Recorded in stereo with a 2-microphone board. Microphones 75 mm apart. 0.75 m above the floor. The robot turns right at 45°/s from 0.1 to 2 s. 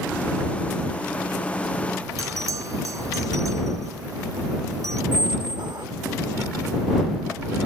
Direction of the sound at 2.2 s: 45° right (ahead or behind).